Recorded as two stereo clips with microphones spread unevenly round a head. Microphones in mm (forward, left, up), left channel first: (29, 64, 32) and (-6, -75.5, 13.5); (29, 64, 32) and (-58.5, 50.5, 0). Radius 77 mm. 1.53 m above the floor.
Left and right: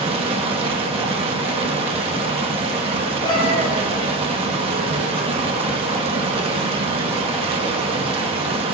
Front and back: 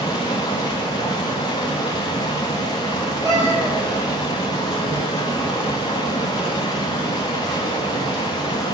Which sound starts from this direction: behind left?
A cat meowing, at 3.2 s.